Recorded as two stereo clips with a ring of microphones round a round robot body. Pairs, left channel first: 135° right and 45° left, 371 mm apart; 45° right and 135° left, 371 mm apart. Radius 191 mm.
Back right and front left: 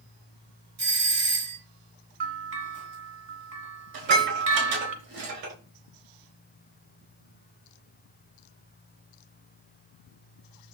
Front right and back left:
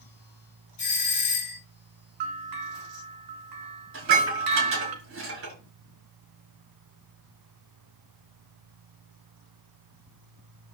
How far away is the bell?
About 2 m.